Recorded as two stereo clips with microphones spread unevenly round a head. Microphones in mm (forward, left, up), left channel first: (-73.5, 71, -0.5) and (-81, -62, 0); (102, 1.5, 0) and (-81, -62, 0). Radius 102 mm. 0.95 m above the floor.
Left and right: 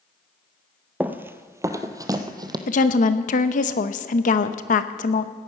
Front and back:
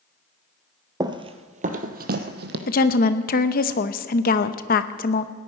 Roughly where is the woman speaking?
Ahead left.